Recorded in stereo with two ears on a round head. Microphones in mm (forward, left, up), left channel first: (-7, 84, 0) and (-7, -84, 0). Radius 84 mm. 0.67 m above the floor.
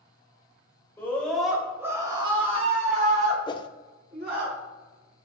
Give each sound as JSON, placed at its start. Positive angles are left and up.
{"t": 1.0, "sound": "a scream", "side_deg": 15, "distance_m": 3.0}
{"t": 3.5, "sound": "a whoosh", "side_deg": 25, "distance_m": 0.5}